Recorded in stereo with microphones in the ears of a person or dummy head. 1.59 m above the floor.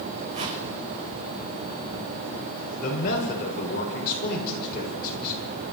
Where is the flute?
No flute in this recording.